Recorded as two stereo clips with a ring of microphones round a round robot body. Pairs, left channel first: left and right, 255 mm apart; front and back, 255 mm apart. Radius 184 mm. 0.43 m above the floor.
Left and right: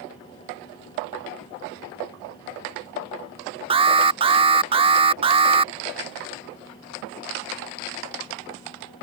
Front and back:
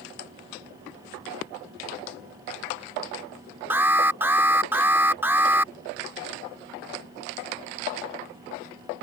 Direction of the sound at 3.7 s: 110° right.